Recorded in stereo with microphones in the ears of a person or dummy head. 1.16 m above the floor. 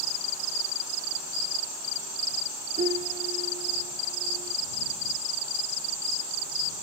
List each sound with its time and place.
2.8 s a piano: 25° right (ahead or behind)